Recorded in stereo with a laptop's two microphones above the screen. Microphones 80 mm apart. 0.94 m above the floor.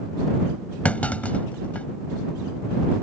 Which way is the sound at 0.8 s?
20° left (ahead or behind).